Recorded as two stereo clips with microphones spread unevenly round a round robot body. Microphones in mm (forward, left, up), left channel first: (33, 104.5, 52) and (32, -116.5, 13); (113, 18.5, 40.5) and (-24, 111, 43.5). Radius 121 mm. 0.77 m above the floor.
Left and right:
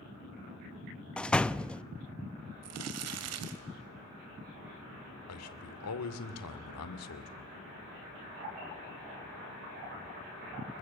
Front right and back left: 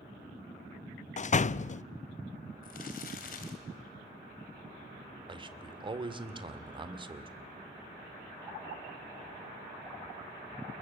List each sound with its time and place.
1.2 s a door slam: straight ahead, 0.6 m
2.6 s crumpling: 85° right, 1.7 m
5.3 s a man speaking: 85° left, 2.5 m